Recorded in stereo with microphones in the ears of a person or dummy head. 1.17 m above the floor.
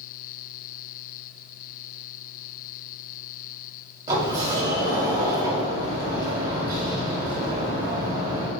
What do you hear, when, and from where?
4.1 s a sliding door: 20° right (ahead or behind), 1.1 m